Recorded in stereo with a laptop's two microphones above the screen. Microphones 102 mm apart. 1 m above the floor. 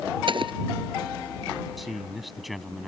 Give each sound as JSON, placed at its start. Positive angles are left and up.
{"t": 0.3, "sound": "an explosion", "side_deg": -55}
{"t": 1.8, "sound": "a man speaking", "side_deg": 0}